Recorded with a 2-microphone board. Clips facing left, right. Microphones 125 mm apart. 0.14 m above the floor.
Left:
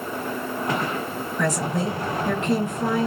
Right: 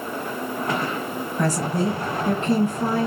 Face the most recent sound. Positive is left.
turn(degrees=-35)  # may be behind; listen again after turning